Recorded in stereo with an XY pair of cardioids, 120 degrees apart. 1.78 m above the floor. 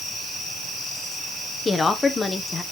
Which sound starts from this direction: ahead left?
A woman speaking, at 1.6 s.